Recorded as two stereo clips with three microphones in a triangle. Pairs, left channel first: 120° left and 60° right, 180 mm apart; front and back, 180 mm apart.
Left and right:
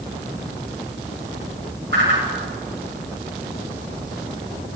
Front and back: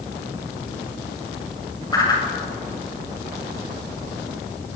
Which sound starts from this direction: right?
A whoosh, at 1.9 s.